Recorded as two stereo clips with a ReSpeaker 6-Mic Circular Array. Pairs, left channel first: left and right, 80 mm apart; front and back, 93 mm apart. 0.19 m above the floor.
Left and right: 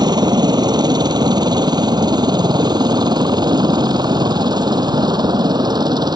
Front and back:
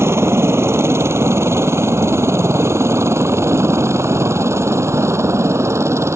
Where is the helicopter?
120° right.